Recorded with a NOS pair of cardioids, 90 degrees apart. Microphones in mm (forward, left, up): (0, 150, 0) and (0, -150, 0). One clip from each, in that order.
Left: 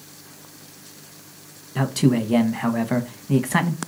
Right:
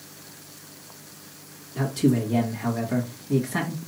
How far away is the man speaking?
About 1.2 m.